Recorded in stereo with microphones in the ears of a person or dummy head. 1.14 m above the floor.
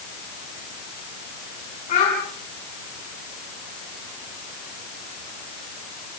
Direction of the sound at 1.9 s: 55° left (ahead or behind).